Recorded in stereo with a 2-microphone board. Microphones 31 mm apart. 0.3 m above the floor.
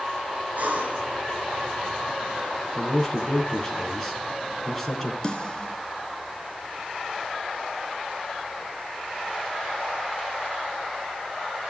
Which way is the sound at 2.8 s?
10° left (ahead or behind).